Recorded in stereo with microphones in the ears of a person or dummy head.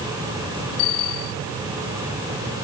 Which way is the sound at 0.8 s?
80° left.